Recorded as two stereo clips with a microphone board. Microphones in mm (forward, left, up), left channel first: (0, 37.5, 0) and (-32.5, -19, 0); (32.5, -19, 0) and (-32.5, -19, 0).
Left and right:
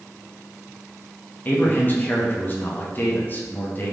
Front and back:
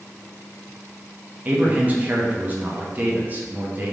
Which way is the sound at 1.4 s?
115° left.